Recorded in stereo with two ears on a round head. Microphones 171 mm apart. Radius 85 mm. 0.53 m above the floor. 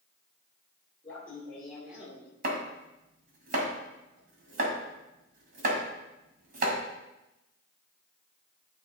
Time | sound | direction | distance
1.0 | laughter | 10° left (ahead or behind) | 2 m
2.4 | chopping | 45° right (ahead or behind) | 1.8 m